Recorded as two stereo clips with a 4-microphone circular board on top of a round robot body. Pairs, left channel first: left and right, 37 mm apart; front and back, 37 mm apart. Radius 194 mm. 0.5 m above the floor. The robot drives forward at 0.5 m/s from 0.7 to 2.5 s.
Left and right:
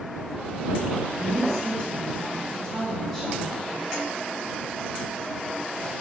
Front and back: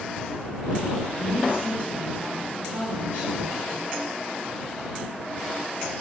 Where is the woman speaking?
165° left, 4 m.